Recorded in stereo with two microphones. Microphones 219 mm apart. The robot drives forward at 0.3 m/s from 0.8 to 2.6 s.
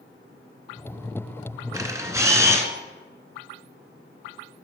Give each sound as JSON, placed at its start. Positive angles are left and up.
{"t": 1.7, "sound": "a camera shutter", "side_deg": -15, "distance_m": 0.8}